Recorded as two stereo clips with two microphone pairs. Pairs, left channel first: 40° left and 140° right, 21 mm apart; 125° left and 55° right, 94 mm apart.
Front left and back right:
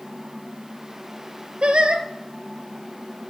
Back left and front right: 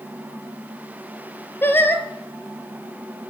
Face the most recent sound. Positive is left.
turn(degrees=-170)